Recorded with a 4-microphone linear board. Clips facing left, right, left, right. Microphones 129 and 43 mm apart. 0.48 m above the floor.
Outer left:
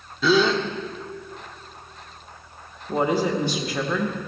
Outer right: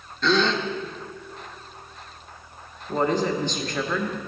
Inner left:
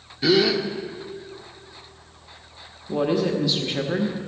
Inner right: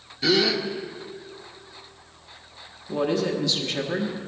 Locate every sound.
0.2 s a gasp: 5° left (ahead or behind), 0.8 m
2.9 s a woman speaking: 10° left (ahead or behind), 1.4 m